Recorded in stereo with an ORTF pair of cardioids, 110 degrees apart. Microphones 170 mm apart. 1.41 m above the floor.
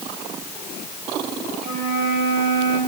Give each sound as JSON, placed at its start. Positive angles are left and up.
{"t": 1.6, "sound": "a flute", "azimuth_deg": -65, "distance_m": 4.0}